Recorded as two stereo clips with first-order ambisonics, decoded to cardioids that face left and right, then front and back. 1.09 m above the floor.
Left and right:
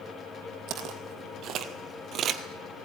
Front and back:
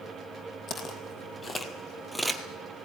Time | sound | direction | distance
0.7 | footsteps | 55° right | 1.8 m